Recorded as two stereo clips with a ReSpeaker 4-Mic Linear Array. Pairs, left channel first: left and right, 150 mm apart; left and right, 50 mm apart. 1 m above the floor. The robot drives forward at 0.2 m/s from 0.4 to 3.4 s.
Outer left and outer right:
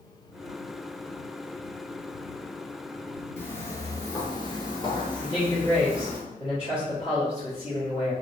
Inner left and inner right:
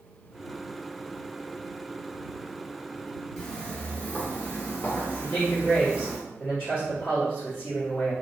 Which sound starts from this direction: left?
A man speaking, at 5.2 s.